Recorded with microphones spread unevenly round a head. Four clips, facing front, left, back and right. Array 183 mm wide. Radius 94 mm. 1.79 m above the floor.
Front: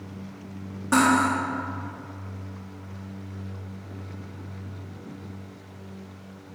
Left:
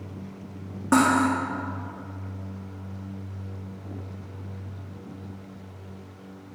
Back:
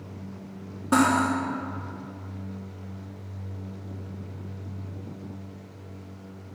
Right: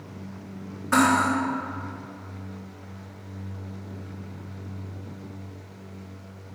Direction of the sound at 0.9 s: 105° left.